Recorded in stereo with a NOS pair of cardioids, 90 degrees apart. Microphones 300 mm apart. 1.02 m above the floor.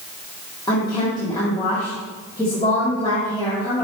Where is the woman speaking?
15° left, 2 m.